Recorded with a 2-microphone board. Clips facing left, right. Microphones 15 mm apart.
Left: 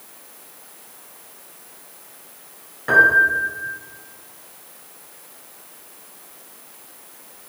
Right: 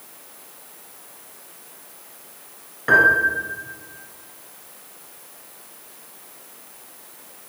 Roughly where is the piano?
Centre.